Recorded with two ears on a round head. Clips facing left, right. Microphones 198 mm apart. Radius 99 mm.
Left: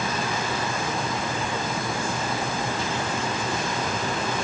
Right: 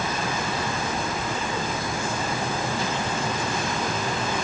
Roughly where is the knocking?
No knocking in this recording.